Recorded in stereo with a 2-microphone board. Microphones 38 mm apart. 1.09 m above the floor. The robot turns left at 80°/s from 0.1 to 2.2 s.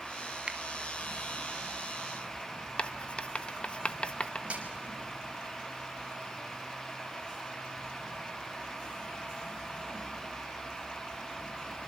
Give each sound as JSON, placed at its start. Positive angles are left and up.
{"t": 0.5, "sound": "a finger snap", "side_deg": -30, "distance_m": 2.0}
{"t": 2.8, "sound": "writing", "side_deg": 30, "distance_m": 1.1}
{"t": 4.5, "sound": "a snare drum", "side_deg": -35, "distance_m": 5.5}